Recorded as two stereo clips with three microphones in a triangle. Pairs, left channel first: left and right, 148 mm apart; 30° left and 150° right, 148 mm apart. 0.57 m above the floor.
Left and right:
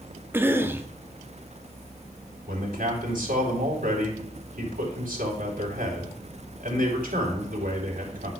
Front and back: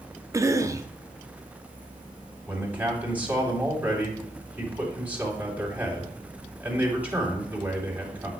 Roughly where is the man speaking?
Right.